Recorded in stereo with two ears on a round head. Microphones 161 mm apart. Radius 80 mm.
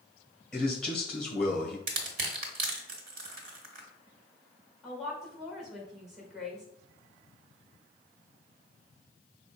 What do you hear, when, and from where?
0.5 s a man speaking: 5° left (ahead or behind), 2.0 m
1.9 s crushing: 60° right (ahead or behind), 1.2 m
4.8 s a woman speaking: centre (ahead or behind), 1.8 m